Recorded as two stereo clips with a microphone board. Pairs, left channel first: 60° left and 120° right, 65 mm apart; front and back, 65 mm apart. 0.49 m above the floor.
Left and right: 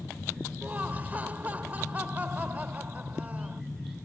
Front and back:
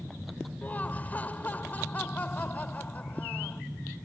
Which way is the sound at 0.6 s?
60° right.